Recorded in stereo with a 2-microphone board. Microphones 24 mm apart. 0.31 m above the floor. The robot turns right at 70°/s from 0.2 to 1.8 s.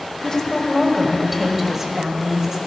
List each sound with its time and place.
0.2 s a woman speaking: 95° left, 1.6 m; by 2.6 s 155° right, 1.6 m